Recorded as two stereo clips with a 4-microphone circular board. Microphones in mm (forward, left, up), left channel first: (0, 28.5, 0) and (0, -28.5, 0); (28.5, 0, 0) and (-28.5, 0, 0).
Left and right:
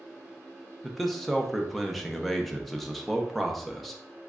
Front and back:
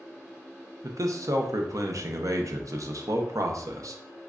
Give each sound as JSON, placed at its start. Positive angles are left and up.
{"t": 0.8, "sound": "a man speaking", "azimuth_deg": 180, "distance_m": 0.5}